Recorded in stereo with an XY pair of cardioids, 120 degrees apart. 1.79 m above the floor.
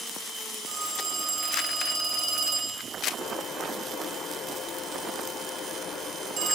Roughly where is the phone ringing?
Ahead right.